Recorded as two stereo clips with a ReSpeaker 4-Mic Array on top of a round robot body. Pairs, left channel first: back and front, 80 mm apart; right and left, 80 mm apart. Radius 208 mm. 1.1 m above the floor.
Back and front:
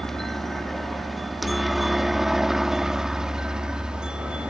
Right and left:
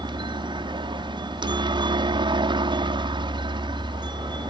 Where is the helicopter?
95° left; by 4.5 s 80° left.